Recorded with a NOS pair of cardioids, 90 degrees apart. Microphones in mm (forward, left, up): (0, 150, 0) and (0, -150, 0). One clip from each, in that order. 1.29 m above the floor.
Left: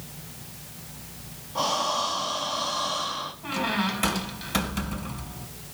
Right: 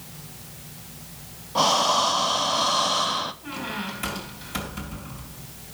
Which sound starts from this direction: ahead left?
A squeak, at 3.4 s.